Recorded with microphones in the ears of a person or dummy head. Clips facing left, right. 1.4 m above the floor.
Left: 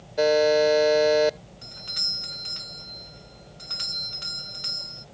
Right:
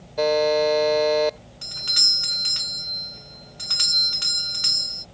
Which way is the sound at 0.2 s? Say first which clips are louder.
Even; 10° left (ahead or behind).